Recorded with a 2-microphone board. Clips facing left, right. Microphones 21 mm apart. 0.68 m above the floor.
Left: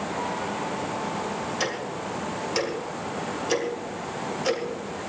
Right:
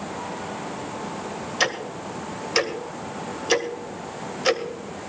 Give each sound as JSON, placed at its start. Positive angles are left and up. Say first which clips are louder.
{"t": 1.6, "sound": "ticking", "louder": "right 4 dB", "side_deg": -20, "distance_m": 2.0}